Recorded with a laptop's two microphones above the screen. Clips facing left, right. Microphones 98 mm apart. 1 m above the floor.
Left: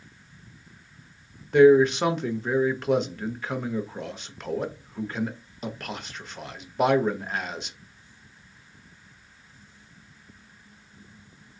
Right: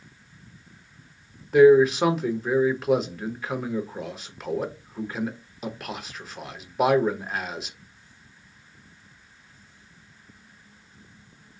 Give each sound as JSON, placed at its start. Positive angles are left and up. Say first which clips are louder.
{"t": 1.5, "sound": "a man speaking", "louder": "right 1 dB", "side_deg": -5, "distance_m": 0.6}